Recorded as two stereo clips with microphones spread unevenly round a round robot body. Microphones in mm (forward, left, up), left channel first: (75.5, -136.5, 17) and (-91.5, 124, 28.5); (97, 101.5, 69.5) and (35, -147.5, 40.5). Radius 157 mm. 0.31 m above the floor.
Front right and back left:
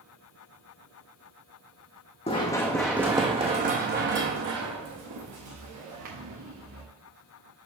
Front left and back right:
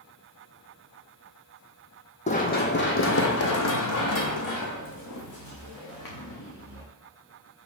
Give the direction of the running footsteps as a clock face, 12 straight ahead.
12 o'clock.